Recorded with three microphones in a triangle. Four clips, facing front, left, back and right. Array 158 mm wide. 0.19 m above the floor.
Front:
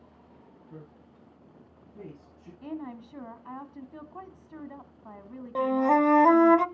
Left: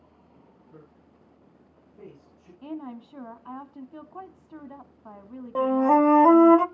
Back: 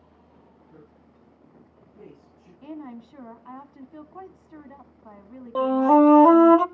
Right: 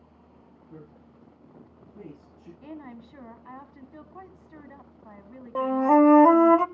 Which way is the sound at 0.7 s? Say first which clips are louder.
Right 5 dB, front 4 dB; 65° right.